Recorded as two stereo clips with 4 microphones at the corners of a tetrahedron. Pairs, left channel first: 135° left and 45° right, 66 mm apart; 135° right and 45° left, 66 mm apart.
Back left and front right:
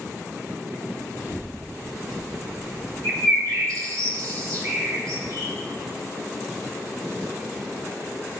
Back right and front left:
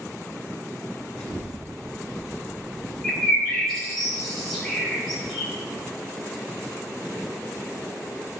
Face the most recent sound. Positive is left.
turn(degrees=-45)